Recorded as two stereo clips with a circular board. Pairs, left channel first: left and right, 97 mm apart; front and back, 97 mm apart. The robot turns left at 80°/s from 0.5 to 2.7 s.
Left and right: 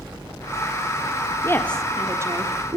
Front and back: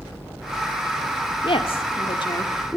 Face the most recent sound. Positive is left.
turn(degrees=-70)